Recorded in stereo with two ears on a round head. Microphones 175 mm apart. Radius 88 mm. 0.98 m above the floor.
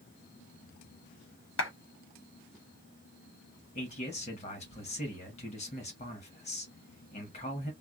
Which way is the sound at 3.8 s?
35° left (ahead or behind).